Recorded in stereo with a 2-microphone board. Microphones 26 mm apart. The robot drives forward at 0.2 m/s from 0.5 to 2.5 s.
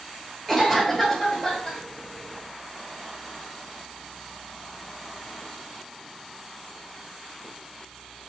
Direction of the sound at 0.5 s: 5° right (ahead or behind).